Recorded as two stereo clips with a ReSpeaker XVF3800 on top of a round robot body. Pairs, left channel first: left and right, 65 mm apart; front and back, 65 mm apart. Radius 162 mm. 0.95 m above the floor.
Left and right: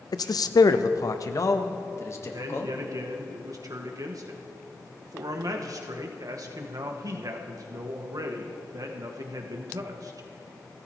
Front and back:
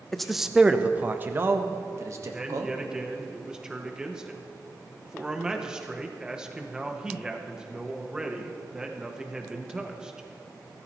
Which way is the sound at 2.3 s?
100° right.